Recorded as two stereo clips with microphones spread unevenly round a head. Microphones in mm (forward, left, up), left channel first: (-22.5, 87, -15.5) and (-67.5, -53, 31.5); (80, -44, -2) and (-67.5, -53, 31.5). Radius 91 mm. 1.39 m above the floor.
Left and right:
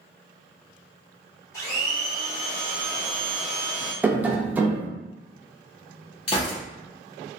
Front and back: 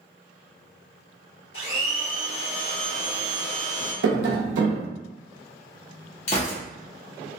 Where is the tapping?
165° left, 0.6 m.